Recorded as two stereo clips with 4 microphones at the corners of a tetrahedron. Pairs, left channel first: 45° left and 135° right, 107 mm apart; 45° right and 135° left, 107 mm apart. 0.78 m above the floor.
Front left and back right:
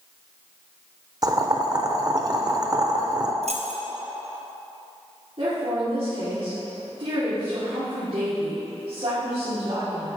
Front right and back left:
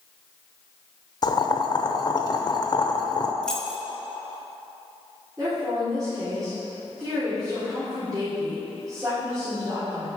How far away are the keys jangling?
About 0.8 m.